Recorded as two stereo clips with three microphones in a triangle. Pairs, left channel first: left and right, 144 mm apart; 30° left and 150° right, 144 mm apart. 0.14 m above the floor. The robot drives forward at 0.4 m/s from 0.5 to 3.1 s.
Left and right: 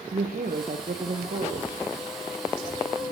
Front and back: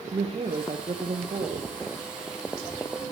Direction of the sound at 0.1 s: 100° right.